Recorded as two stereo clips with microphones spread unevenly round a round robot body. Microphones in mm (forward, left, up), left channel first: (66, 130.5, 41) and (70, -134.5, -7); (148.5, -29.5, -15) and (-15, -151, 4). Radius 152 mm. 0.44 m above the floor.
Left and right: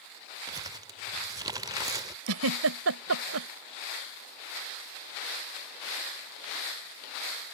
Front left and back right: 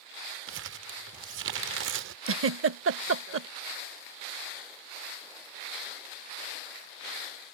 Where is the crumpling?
155° right.